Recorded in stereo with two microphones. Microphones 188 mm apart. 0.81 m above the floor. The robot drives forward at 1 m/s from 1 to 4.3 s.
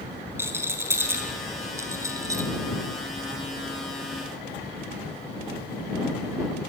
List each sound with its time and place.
0.4 s a rattle: 15° right (ahead or behind), 5 m; by 2.5 s 20° right (ahead or behind), 3.5 m